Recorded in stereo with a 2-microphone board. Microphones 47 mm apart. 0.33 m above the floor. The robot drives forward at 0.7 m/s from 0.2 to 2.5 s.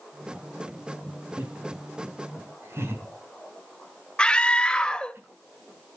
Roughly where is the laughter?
Right.